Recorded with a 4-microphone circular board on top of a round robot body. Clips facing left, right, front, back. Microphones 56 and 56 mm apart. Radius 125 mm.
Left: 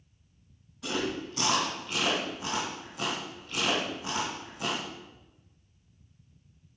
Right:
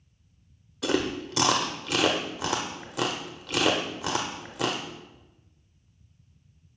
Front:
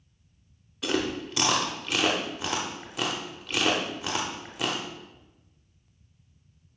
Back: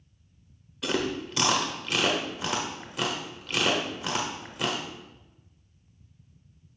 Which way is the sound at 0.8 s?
85° right.